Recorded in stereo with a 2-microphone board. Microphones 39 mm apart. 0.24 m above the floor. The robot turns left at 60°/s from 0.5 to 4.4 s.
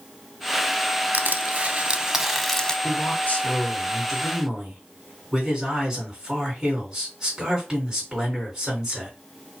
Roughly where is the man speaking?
Left.